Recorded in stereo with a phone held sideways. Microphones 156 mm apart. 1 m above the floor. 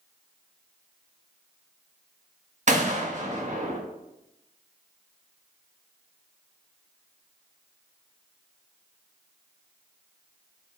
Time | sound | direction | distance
2.7 | a gunshot | 50° right (ahead or behind) | 1.1 m